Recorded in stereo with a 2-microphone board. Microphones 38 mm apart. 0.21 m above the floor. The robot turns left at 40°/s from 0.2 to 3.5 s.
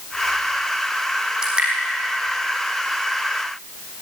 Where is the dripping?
15° right (ahead or behind), 5 m; by 1.7 s 30° right (ahead or behind), 5 m.